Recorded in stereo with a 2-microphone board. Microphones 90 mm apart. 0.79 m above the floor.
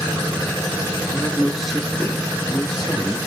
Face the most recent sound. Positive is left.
turn(degrees=0)  # may be behind; listen again after turning